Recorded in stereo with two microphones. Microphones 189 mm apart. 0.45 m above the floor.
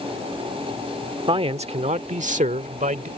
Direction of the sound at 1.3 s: 30° right (ahead or behind).